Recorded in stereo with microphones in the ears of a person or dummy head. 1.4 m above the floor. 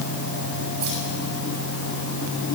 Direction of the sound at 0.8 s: 75° right (ahead or behind).